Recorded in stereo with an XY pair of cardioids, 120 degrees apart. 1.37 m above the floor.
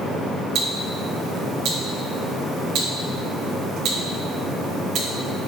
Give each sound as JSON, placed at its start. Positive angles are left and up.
{"t": 0.6, "sound": "ticking", "azimuth_deg": -65, "distance_m": 1.7}